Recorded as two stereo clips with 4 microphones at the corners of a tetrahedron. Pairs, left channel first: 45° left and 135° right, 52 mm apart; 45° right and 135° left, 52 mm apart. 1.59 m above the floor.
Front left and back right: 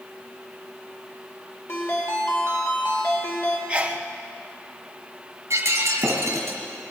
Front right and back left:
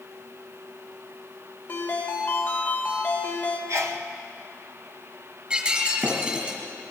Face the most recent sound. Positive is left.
turn(degrees=-160)